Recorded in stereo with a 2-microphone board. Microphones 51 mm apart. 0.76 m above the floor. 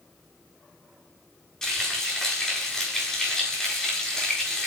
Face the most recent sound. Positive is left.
turn(degrees=10)  # may be behind; listen again after turning